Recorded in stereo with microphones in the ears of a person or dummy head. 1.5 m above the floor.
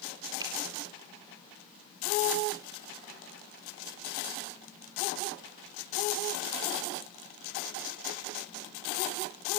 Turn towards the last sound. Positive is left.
turn(degrees=-25)  # may be behind; listen again after turning